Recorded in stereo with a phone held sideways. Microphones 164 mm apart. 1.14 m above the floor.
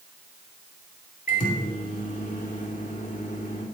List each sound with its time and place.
1.3 s a microwave: 50° left (ahead or behind), 2.5 m